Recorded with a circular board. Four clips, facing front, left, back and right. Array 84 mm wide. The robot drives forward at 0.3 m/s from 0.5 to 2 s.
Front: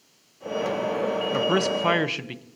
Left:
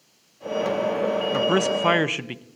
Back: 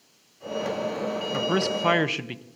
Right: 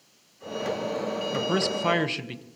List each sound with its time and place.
1.3 s a man speaking: 60° left, 0.7 m; by 2.4 s 105° left, 0.7 m